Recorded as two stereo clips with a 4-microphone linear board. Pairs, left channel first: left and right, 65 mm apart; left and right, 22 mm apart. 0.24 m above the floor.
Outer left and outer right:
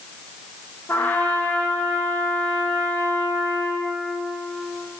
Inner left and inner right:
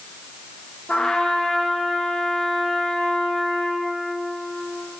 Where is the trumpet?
25° left (ahead or behind), 1.8 m.